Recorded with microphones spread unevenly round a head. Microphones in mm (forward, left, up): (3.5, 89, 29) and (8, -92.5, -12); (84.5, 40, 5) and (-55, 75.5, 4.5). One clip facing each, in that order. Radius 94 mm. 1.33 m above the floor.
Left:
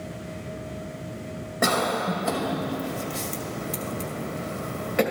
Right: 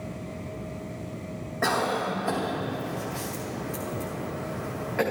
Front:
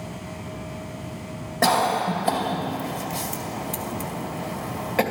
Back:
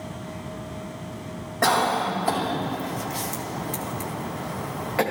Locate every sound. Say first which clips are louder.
1.6 s a cough: left 2 dB, front 1 dB; 45° left, 2.5 m